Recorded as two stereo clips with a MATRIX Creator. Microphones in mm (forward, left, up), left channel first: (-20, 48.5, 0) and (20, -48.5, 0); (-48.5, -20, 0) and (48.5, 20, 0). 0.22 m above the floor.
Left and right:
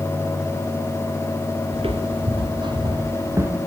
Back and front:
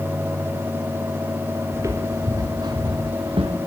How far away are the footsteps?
About 3 m.